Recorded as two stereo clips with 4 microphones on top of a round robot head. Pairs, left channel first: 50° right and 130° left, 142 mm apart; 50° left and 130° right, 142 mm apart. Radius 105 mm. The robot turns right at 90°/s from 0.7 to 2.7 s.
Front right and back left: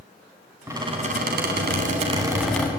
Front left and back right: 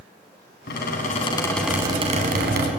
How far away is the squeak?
About 4 m.